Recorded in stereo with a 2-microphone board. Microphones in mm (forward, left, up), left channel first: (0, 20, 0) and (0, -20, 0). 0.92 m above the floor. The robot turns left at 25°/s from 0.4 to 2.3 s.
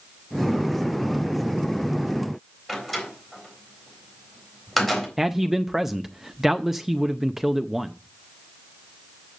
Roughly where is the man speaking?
Centre.